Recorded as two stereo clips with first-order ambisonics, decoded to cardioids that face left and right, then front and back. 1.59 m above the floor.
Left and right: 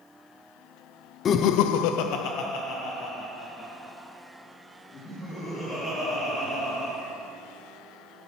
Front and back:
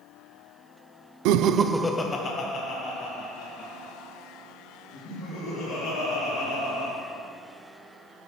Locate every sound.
1.2 s laughter: 150° left, 0.6 m; by 6.9 s 35° left, 6 m